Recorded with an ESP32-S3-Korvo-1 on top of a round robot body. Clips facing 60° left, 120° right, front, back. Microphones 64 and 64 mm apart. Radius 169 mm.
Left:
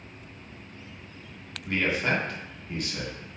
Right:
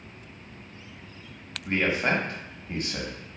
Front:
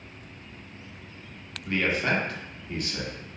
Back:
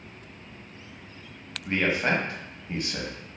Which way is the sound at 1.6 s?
145° right.